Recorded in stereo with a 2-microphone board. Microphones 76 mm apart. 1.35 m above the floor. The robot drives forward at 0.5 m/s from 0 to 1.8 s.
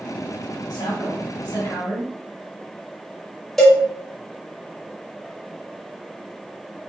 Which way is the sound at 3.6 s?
5° left (ahead or behind).